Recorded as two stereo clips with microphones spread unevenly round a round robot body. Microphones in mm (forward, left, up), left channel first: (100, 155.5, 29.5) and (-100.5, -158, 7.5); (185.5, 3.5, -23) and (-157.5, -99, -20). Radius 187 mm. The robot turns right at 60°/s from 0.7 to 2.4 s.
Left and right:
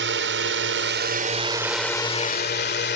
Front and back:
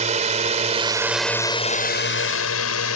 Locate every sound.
0.0 s a drone: 110° right; by 3.0 s 5° left